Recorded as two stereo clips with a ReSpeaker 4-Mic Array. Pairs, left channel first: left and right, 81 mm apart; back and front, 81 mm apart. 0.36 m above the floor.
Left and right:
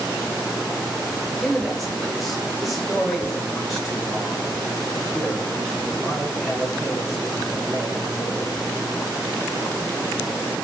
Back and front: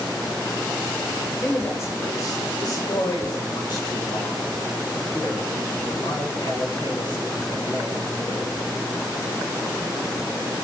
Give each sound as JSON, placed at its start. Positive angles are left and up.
{"t": 1.4, "sound": "a man speaking", "azimuth_deg": -175, "distance_m": 1.4}